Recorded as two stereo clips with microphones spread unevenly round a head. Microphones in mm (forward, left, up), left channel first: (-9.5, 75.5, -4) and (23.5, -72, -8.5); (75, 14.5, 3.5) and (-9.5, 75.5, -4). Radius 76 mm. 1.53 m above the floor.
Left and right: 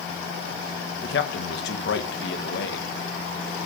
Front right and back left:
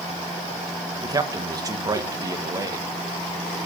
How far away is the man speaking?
About 1.5 m.